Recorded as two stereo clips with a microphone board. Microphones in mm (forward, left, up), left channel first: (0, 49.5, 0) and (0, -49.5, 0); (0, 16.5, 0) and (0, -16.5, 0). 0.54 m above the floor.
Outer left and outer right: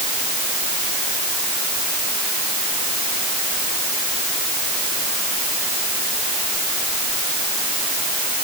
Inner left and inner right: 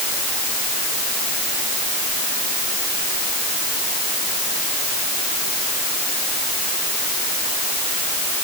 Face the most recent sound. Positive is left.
No sound to turn to.